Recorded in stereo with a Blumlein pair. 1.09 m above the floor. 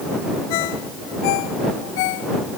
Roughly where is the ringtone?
Ahead left.